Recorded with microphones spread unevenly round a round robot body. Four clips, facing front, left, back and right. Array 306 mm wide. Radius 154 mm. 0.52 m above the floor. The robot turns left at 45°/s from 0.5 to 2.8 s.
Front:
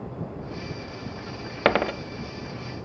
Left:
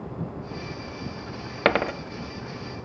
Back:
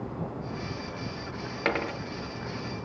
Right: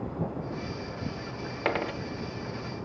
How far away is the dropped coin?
About 0.8 m.